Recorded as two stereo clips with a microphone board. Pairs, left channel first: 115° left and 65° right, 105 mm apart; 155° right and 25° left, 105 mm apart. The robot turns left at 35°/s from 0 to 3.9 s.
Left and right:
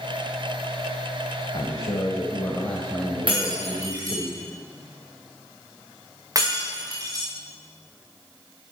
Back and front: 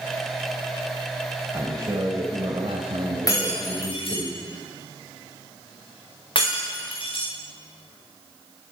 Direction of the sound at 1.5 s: 80° left.